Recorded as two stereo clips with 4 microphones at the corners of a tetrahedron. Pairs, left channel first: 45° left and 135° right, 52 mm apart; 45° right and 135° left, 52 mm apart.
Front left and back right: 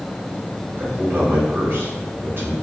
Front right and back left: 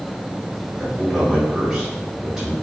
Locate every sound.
0.8 s a man speaking: 150° right, 1.6 m